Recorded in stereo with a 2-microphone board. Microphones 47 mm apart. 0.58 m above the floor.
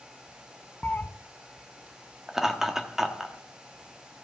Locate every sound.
0.8 s a cat meowing: 40° left (ahead or behind), 0.5 m
2.3 s laughter: 10° right (ahead or behind), 1.0 m